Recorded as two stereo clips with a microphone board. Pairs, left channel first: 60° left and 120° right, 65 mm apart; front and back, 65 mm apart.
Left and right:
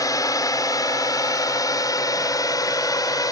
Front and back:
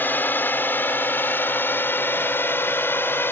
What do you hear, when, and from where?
0.0 s a drone: 55° left; by 3.3 s 50° left